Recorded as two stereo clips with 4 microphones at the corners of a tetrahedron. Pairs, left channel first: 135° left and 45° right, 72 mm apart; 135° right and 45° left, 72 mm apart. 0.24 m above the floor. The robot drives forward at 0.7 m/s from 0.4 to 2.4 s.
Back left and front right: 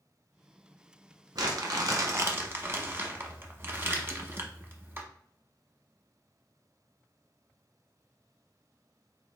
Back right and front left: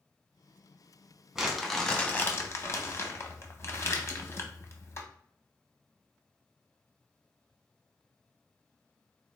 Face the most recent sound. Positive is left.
turn(degrees=-95)